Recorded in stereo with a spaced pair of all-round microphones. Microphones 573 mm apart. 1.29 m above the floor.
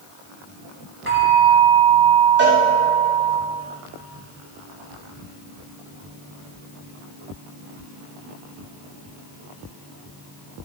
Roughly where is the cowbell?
Right.